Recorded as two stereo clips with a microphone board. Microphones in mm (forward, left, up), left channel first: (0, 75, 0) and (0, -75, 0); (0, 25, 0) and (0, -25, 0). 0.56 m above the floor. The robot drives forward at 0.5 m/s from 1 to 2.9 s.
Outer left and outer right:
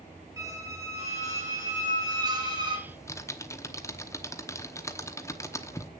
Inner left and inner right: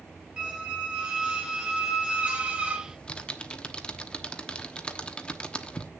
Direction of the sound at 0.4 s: 20° right (ahead or behind).